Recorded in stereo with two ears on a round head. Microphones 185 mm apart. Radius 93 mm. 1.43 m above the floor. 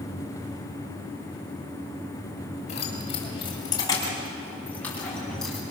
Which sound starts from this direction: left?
Keys jangling, at 2.7 s.